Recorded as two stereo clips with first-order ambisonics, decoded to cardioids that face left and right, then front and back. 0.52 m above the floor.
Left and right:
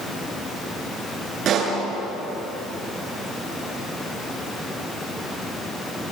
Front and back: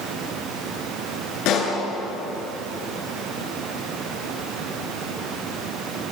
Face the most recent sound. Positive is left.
turn(degrees=-35)